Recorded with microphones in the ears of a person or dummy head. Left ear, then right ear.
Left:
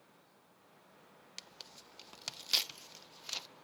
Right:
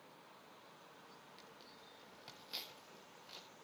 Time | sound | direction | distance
1.4 | tearing paper | 70° left (ahead or behind) | 0.5 m